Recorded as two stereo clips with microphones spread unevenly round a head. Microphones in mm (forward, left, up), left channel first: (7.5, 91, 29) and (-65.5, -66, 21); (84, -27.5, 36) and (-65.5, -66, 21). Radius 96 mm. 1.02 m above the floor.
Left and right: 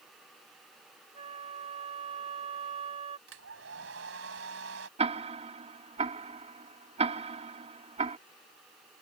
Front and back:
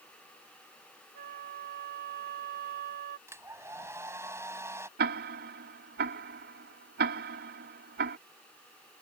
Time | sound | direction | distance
1.1 | a flute | 170° right | ?
3.3 | a hair dryer | 90° right | ?
5.0 | ticking | 165° right | ?